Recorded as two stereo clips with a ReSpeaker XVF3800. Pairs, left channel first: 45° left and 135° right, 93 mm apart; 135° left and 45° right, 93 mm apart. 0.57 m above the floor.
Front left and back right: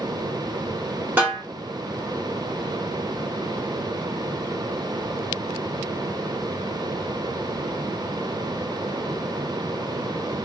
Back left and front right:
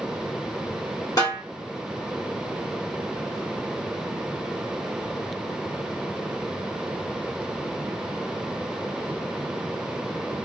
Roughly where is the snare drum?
Behind.